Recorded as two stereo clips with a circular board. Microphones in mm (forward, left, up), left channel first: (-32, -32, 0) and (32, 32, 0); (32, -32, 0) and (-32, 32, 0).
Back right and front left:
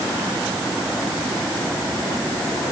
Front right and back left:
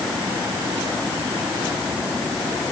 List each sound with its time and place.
Only background noise.